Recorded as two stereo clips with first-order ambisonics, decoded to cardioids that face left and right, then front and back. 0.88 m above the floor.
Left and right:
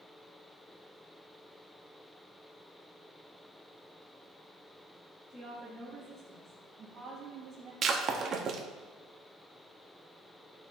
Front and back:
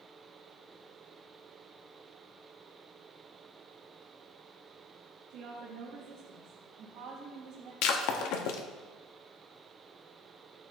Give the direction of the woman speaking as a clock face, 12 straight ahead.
7 o'clock.